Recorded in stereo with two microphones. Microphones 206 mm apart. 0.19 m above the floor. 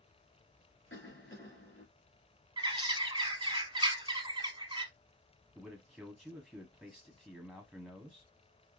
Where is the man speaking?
Centre (ahead or behind), 1.0 m.